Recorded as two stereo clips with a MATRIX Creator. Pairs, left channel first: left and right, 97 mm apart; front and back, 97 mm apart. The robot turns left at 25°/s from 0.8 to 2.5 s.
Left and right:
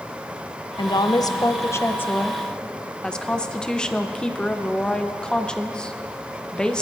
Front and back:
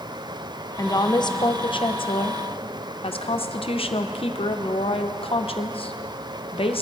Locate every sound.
0.8 s a woman speaking: 50° left, 0.8 m; by 6.8 s 10° left, 0.8 m